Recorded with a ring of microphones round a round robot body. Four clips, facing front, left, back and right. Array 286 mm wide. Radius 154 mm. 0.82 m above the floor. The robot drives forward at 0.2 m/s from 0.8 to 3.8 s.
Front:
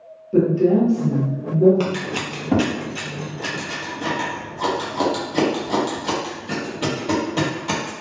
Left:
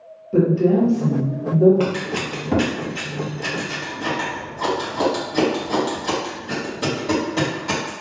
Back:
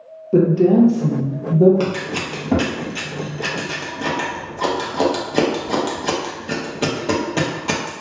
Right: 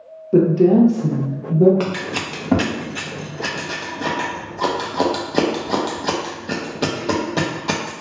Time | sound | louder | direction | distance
0.3 | a woman speaking | right 3 dB, back 3 dB | 135° right | 0.7 m
1.8 | scissors | left 1 dB, back 2 dB | 75° right | 0.8 m